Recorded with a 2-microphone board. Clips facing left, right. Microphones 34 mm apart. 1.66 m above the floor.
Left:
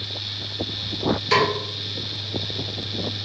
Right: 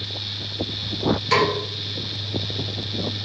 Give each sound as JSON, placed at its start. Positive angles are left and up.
{"t": 1.3, "sound": "a snare drum", "side_deg": 0, "distance_m": 2.5}